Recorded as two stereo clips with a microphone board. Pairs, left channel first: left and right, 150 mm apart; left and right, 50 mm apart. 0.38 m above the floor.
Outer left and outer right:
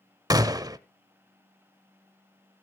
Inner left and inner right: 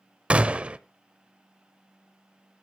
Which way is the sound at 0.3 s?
25° right (ahead or behind).